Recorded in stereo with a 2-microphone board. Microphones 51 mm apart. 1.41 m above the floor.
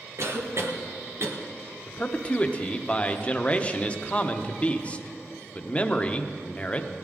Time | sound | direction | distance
0.2 | a cough | 60° right (ahead or behind) | 1.3 m
1.9 | a man speaking | 25° left (ahead or behind) | 0.7 m